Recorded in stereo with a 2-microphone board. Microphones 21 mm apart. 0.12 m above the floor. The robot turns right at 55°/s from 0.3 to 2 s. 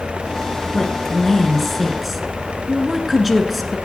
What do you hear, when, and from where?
0.7 s a woman speaking: 25° left (ahead or behind), 1.4 m; by 3.8 s 5° right (ahead or behind), 1.4 m